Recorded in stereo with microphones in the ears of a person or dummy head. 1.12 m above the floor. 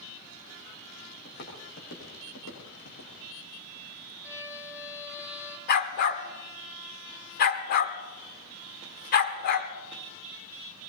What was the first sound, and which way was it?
Footsteps, 50° left (ahead or behind).